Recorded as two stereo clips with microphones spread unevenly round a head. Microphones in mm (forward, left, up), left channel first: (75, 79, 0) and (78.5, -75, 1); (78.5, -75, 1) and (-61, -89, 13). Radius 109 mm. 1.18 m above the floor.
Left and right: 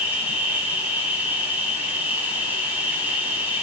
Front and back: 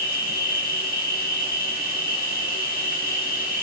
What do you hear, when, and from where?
0.0 s an insect: 10° right, 4.5 m